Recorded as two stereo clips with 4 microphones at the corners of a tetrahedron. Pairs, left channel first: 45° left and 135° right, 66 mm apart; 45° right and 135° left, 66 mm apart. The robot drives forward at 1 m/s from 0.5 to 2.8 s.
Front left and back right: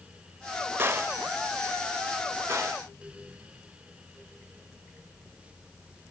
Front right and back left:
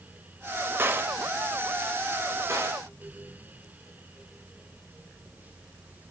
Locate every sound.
0.8 s a gunshot: straight behind, 1.2 m